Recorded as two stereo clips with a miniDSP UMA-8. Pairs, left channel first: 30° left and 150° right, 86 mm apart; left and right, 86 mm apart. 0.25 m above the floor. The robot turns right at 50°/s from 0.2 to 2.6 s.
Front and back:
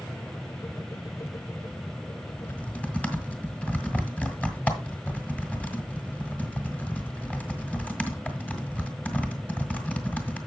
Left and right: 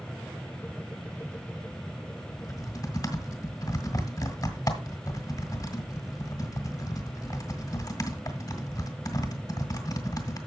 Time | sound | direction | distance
2.4 | typing on a keyboard | 85° left | 1.9 m